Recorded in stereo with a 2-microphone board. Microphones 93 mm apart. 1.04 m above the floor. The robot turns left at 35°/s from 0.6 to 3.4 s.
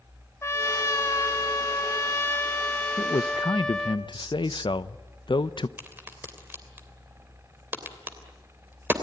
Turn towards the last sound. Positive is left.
turn(degrees=-25)  # may be behind; listen again after turning